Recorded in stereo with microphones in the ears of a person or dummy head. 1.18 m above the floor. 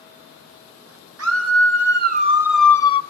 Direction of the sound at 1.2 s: 75° right (ahead or behind).